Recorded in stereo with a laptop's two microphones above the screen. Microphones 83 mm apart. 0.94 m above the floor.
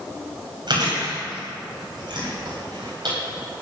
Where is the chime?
I don't hear a chime.